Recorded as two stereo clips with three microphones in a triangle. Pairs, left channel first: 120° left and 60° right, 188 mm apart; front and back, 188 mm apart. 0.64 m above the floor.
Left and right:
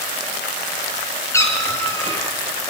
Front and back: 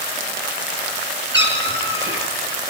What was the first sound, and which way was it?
A cat meowing, 165° right.